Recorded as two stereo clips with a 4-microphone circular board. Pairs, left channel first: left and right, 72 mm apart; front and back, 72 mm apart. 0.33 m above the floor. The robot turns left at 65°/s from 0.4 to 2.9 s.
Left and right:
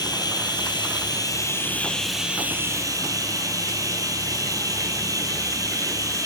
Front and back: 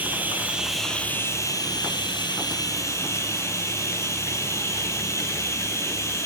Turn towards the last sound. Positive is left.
turn(degrees=-50)